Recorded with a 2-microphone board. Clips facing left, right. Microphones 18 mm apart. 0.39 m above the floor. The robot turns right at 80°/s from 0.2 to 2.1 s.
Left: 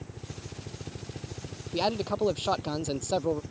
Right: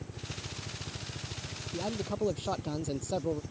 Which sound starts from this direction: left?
A man speaking, at 1.7 s.